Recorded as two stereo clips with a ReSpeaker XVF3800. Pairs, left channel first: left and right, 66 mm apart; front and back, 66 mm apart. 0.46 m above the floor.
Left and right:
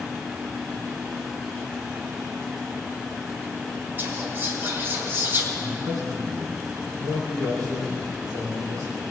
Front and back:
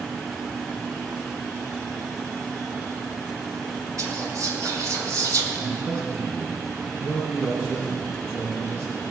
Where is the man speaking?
120° right, 5 m.